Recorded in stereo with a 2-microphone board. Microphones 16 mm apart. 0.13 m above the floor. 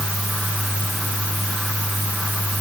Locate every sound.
Only background noise.